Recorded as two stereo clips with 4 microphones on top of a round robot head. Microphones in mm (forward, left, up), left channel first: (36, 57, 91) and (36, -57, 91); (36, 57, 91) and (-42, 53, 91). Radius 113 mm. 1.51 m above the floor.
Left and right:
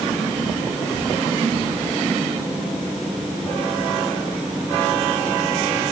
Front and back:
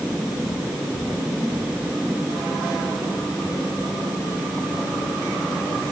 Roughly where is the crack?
No crack in this recording.